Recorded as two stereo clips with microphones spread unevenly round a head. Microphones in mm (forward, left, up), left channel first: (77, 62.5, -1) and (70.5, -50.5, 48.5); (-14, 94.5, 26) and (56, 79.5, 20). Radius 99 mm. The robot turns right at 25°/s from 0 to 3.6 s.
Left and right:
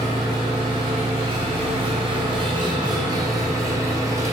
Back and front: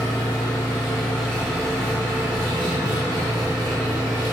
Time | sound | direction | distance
0.0 | an engine running | 140° right | 1.7 m